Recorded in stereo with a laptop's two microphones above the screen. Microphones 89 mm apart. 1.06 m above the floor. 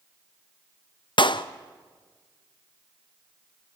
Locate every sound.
1.2 s a clap: 65° left (ahead or behind), 0.6 m